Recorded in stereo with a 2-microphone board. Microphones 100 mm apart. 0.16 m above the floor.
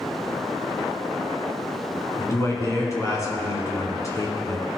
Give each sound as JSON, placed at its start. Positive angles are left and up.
{"t": 2.2, "sound": "a man speaking", "side_deg": 30, "distance_m": 1.8}